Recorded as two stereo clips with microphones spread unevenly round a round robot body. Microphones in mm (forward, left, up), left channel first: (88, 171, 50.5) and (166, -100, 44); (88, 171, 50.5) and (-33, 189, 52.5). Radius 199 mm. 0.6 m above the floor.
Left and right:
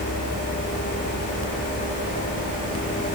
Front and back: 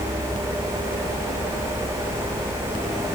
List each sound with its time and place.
Only background noise.